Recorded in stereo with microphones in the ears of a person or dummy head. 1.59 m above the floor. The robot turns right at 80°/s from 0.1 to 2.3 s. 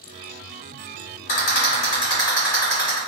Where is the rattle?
45° left (ahead or behind), 2.0 m; by 3.0 s 15° left (ahead or behind), 2.0 m.